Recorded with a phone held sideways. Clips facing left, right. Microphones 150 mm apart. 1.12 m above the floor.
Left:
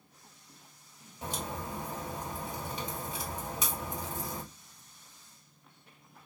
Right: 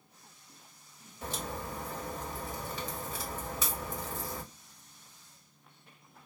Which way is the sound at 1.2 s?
15° left (ahead or behind).